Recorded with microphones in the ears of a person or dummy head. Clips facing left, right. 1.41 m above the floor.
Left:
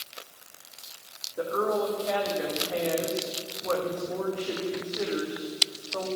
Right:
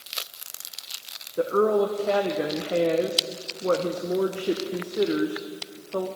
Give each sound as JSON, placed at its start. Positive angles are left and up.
{"t": 1.4, "sound": "a woman speaking", "side_deg": -45, "distance_m": 0.9}